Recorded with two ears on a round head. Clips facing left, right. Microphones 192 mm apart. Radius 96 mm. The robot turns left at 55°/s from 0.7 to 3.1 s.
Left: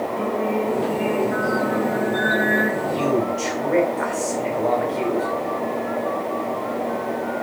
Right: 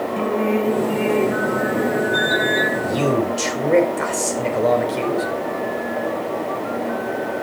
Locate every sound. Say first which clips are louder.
0.2 s singing: right 4 dB; 95° right, 2.5 m; by 2.7 s 155° left, 2.5 m
2.8 s a man speaking: right 2 dB; 65° right (ahead or behind), 3.5 m; by 5.3 s 50° right (ahead or behind), 3.5 m